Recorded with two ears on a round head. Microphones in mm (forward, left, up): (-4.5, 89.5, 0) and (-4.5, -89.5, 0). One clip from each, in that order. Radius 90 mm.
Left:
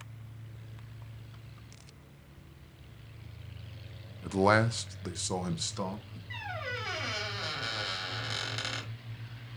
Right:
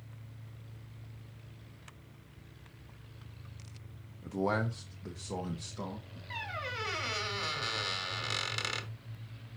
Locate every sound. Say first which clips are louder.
4.2 s a man speaking: left 7 dB; 35° left (ahead or behind), 0.5 m; by 6.2 s 65° left (ahead or behind), 1.8 m
6.3 s a squeak: left 1 dB; 20° right (ahead or behind), 1.6 m